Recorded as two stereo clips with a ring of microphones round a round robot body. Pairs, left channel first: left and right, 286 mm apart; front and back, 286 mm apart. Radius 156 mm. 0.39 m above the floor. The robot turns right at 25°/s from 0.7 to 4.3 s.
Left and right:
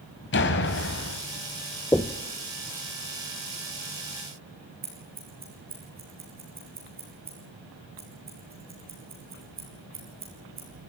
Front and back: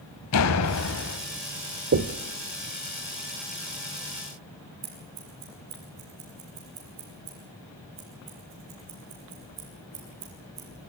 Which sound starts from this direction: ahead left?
A door slam, at 0.3 s.